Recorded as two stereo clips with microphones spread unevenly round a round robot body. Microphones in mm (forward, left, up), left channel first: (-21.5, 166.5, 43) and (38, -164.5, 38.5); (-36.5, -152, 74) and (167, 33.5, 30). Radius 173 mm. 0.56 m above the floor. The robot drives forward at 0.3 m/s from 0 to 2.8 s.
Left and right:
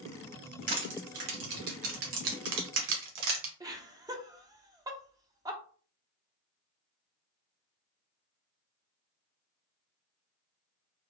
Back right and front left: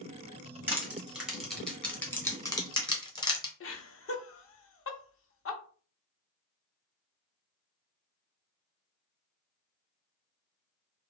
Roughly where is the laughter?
Behind right.